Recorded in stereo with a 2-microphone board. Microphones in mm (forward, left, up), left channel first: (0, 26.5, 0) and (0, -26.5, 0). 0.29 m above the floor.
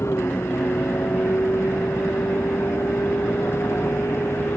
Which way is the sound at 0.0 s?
55° left (ahead or behind).